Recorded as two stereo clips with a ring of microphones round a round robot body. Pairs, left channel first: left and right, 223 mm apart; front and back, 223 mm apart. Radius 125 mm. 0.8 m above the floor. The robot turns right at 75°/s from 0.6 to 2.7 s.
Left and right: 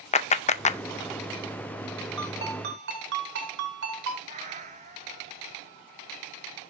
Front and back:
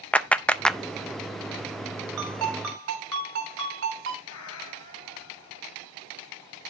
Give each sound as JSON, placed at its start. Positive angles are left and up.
{"t": 0.1, "sound": "a clap", "azimuth_deg": 80, "distance_m": 0.6}
{"t": 2.2, "sound": "a ringtone", "azimuth_deg": -175, "distance_m": 3.5}
{"t": 4.3, "sound": "a cat meowing", "azimuth_deg": -30, "distance_m": 2.0}